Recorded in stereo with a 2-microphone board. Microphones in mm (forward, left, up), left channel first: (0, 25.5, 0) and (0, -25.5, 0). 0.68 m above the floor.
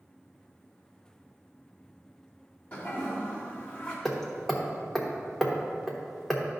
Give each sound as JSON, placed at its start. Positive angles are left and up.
{"t": 2.7, "sound": "a toilet flushing", "side_deg": 30, "distance_m": 1.7}
{"t": 4.0, "sound": "hammering", "side_deg": 5, "distance_m": 1.1}